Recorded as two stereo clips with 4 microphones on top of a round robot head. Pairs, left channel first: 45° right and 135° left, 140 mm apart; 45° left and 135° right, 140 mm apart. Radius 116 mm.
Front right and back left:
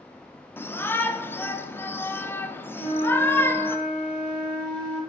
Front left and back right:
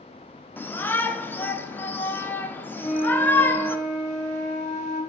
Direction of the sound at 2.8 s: 5° left.